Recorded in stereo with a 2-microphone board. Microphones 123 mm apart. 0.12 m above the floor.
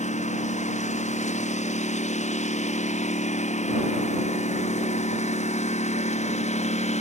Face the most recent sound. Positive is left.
turn(degrees=70)  # may be behind; listen again after turning